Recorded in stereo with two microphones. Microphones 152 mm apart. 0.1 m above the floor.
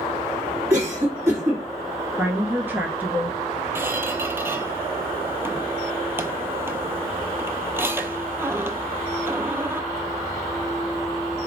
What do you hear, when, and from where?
0.7 s a cough: 20° right (ahead or behind), 1.8 m
2.2 s a woman speaking: 15° right (ahead or behind), 1.3 m
3.8 s a squeak: 15° right (ahead or behind), 0.6 m